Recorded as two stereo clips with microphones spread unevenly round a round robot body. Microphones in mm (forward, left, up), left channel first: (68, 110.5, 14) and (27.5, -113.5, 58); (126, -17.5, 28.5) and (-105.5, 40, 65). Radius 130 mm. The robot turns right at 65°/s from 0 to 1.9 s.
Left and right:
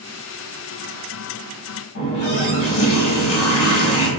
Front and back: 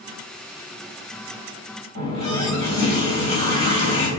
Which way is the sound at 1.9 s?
55° left.